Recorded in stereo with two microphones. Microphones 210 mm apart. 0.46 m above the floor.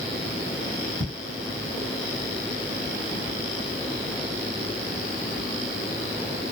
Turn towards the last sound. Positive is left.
turn(degrees=15)  # may be behind; listen again after turning